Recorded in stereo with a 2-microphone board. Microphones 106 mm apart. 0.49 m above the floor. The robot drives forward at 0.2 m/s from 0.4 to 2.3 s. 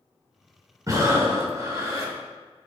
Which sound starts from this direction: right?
Breathing, at 0.9 s.